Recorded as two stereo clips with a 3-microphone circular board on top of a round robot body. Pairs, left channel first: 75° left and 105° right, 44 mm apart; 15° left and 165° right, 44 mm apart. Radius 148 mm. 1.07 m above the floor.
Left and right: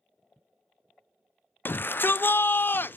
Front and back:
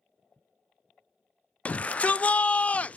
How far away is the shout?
About 0.6 m.